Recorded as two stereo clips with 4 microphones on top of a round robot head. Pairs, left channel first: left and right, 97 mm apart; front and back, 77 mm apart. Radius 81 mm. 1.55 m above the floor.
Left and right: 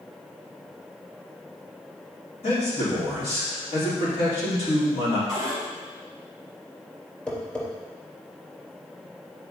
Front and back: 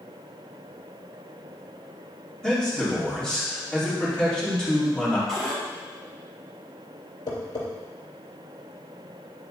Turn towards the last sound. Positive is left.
turn(degrees=15)